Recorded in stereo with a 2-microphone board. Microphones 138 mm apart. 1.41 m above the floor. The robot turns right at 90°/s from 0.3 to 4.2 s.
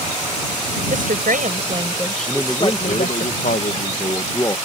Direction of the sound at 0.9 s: 115° right.